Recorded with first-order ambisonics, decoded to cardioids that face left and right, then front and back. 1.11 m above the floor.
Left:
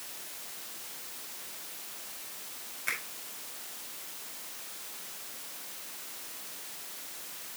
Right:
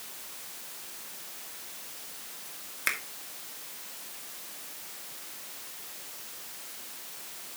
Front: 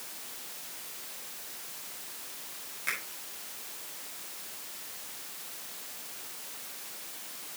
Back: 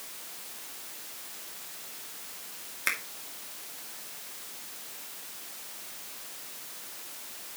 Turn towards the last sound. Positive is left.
turn(degrees=-130)